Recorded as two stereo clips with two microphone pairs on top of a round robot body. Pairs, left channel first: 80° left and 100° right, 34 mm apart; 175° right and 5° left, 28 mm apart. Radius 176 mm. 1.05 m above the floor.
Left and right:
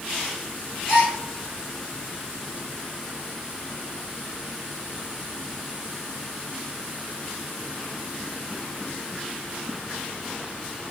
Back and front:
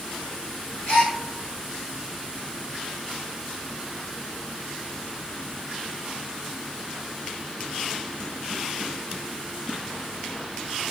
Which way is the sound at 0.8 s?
150° left.